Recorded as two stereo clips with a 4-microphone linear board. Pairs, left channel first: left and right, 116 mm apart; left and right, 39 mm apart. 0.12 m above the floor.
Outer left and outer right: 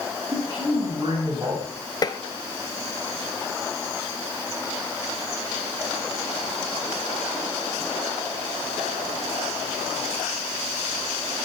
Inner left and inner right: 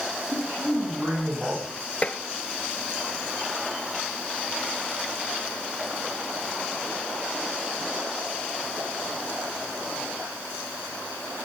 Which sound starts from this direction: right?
A man speaking, at 0.3 s.